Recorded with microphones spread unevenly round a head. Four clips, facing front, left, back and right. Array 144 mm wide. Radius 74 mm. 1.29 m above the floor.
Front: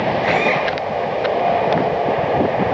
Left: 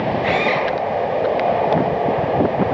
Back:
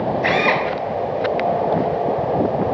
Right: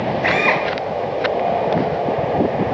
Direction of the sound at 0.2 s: 130° right.